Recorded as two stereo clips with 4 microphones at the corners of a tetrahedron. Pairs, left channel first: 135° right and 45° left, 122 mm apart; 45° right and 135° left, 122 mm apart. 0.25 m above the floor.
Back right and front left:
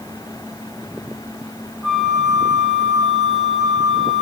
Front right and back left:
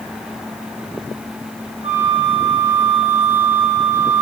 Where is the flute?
135° left, 1.7 m.